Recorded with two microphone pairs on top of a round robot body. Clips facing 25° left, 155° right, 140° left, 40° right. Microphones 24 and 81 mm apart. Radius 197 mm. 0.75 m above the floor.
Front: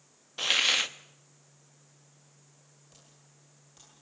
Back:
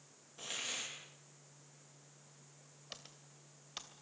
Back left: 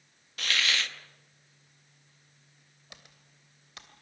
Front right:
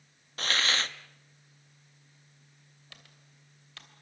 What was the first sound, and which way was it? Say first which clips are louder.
A hiss: front 17 dB, front right 1 dB; 15° left.